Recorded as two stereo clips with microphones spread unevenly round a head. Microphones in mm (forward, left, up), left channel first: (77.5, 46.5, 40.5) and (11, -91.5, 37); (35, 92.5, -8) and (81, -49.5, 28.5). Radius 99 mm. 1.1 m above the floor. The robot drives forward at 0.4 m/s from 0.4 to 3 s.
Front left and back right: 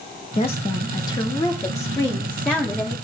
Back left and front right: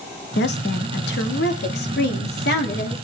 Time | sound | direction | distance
0.4 | a woman speaking | 125° left | 1.3 m